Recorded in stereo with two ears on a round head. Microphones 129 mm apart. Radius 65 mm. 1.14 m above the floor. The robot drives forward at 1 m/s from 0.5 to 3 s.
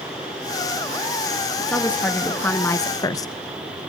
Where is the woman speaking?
10° left (ahead or behind), 2.0 m; by 3.3 s 25° left (ahead or behind), 0.6 m.